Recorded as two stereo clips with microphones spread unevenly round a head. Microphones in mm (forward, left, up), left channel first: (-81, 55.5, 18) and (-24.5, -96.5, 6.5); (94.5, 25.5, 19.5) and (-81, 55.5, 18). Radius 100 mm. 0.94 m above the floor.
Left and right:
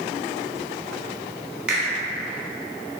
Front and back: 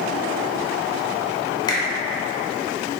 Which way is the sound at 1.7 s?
5° right.